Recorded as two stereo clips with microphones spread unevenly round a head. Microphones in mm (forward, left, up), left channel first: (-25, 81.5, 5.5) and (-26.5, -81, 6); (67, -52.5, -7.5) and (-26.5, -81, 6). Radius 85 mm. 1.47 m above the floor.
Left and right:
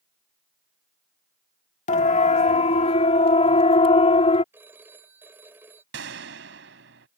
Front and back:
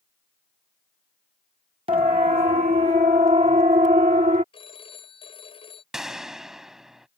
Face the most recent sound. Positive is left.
turn(degrees=-80)